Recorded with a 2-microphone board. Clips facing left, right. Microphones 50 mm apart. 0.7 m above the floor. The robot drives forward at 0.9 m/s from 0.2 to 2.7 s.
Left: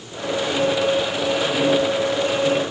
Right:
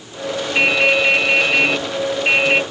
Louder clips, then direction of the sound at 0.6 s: Right 6 dB; 75° right (ahead or behind).